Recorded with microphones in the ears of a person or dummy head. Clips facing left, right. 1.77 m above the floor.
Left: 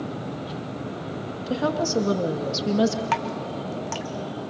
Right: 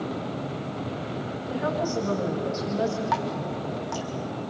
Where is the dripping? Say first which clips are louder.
Even; 40° left (ahead or behind), 1.3 m.